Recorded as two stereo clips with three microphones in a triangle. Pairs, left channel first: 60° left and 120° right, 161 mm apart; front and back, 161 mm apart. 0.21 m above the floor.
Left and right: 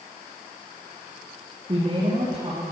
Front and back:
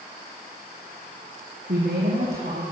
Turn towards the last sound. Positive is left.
turn(degrees=-175)